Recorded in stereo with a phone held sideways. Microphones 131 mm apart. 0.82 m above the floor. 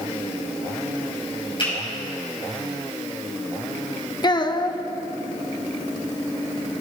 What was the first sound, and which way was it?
A finger snap, 40° left (ahead or behind).